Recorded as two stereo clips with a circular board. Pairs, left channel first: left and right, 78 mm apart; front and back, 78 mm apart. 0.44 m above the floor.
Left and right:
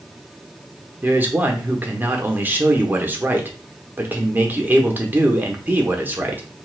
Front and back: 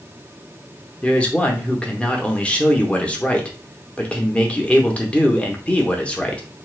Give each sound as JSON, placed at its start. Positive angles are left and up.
{"t": 1.0, "sound": "a man speaking", "azimuth_deg": -55, "distance_m": 0.8}